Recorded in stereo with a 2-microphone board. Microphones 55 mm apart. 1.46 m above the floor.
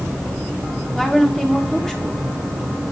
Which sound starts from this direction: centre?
A woman speaking, at 0.9 s.